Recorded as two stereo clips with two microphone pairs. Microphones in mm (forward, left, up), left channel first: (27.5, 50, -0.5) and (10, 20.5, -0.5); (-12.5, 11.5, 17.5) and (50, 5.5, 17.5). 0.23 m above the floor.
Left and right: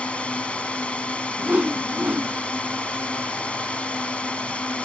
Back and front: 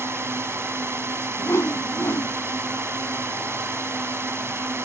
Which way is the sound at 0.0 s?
20° left.